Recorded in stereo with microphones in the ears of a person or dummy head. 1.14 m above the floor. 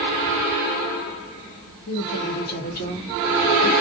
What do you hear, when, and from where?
1.9 s a woman speaking: 80° left, 0.9 m; by 3.7 s 30° left (ahead or behind), 1.5 m